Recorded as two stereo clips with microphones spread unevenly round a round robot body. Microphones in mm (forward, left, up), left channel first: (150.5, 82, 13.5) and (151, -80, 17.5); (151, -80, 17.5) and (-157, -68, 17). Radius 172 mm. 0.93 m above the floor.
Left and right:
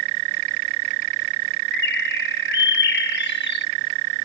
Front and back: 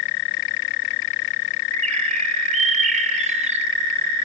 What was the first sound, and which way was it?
A bird, 105° left.